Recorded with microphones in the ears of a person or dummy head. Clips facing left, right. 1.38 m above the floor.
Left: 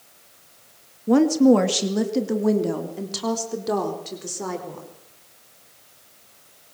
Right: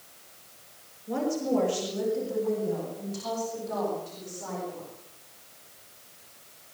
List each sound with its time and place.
1.1 s a woman speaking: 80° left, 1.9 m